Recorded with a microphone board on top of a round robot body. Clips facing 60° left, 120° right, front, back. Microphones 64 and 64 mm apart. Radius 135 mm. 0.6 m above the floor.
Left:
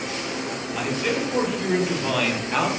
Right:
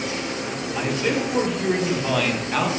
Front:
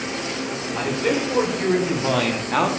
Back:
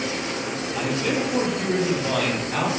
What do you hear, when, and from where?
0.7 s a man speaking: 40° right, 3 m; by 2.7 s 20° right, 1.5 m